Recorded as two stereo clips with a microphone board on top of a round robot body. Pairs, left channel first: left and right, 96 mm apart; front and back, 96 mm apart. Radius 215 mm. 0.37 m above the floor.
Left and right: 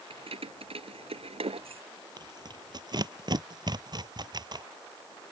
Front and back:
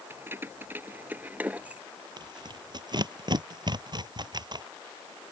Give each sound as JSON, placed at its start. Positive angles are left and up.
{"t": 0.1, "sound": "keys jangling", "azimuth_deg": -110}
{"t": 2.2, "sound": "tearing paper", "azimuth_deg": -135}